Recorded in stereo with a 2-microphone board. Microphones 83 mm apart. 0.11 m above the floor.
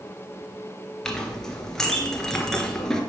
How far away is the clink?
About 1.1 m.